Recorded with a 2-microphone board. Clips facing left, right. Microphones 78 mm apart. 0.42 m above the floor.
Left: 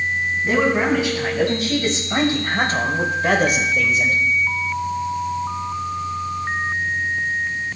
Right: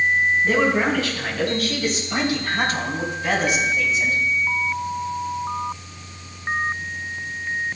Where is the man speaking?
15° left (ahead or behind), 4 m; by 4.2 s 50° left (ahead or behind), 2 m.